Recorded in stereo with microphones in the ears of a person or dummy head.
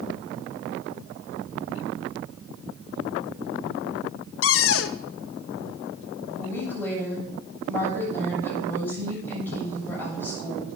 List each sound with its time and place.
4.4 s a cupboard door: 65° left (ahead or behind), 0.7 m
6.4 s a woman speaking: 15° left (ahead or behind), 7.5 m